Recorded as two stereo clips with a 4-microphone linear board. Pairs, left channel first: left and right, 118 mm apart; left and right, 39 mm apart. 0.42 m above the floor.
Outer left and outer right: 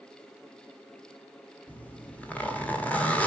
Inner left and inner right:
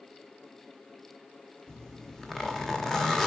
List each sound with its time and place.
1.7 s a zipper: 10° left (ahead or behind), 1.4 m